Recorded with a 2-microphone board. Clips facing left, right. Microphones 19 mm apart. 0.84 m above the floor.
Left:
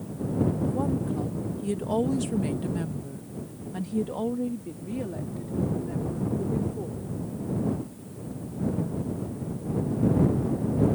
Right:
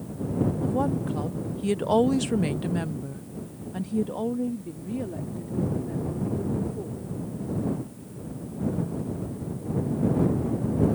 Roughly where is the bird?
No bird in this recording.